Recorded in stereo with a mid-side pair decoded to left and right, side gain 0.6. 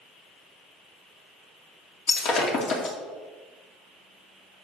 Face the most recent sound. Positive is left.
turn(degrees=55)